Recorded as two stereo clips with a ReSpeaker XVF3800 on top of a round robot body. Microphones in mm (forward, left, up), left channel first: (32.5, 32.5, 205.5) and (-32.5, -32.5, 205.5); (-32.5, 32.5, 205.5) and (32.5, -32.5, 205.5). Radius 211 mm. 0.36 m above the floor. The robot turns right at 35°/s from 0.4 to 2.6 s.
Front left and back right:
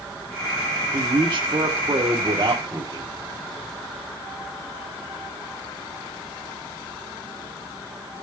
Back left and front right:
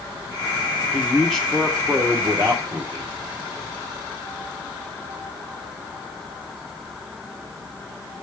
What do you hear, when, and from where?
0.9 s a man speaking: 155° right, 1.4 m; by 3.1 s 100° right, 1.4 m